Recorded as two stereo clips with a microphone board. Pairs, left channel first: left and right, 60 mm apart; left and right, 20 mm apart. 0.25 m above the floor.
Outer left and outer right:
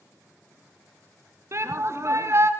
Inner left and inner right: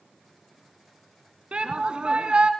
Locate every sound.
1.5 s a shout: 55° right (ahead or behind), 2.5 m